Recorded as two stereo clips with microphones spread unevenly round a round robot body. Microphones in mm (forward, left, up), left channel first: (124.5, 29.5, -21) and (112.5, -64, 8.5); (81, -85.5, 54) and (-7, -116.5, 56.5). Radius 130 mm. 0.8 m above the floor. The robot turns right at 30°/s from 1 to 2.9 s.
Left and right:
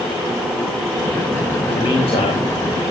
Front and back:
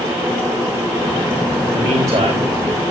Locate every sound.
1.7 s a man speaking: 120° left, 3 m; by 2.5 s 145° left, 3 m